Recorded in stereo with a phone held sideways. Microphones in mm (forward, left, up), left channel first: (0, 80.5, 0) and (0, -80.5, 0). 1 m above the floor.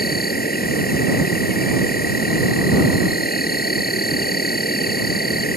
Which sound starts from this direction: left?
An insect, at 0.0 s.